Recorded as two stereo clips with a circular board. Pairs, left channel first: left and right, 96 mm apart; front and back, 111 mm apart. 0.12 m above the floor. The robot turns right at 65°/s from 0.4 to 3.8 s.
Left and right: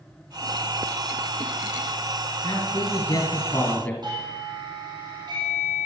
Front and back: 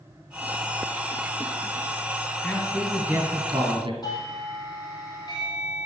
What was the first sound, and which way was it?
A man speaking, 70° left.